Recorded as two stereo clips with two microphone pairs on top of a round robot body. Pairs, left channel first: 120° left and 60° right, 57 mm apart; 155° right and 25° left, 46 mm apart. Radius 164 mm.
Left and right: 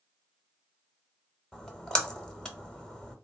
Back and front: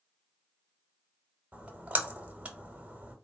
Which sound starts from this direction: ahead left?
A splash, at 1.5 s.